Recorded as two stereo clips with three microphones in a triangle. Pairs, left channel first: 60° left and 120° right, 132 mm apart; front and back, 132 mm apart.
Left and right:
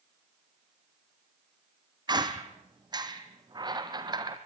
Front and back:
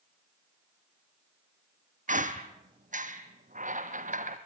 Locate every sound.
2.1 s a squeak: 175° right, 1.4 m